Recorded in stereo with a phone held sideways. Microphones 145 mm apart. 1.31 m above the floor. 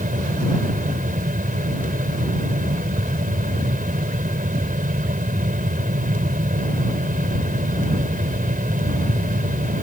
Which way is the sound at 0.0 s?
70° right (ahead or behind).